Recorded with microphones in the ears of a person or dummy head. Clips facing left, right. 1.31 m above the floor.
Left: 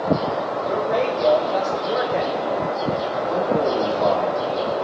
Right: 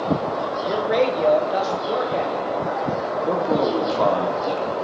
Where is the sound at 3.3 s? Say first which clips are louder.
Even; 80° right, 3.5 m.